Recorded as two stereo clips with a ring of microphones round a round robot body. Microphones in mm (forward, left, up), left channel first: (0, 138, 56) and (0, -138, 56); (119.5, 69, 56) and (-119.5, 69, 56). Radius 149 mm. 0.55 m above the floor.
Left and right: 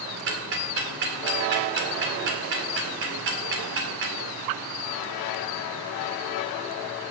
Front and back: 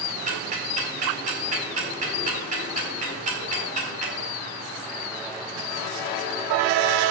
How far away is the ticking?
About 2 m.